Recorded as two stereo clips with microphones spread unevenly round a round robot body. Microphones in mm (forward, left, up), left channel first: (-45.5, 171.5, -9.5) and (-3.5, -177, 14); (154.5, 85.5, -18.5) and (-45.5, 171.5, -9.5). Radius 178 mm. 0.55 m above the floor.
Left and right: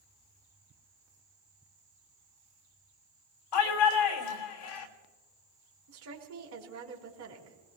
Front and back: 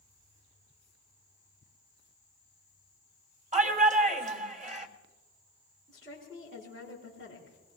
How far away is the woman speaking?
About 4.5 m.